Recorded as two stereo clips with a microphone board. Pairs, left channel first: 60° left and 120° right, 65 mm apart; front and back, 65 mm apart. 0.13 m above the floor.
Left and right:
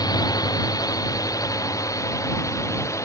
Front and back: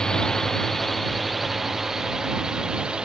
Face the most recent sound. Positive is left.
turn(degrees=105)